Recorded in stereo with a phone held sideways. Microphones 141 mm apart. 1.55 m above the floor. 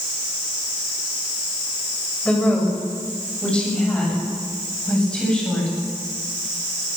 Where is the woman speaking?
5° left (ahead or behind), 8 m.